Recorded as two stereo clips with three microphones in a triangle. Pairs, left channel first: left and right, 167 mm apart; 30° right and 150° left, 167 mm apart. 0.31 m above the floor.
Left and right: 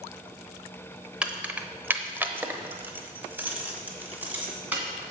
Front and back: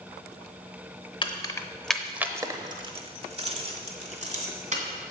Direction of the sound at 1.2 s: 15° right.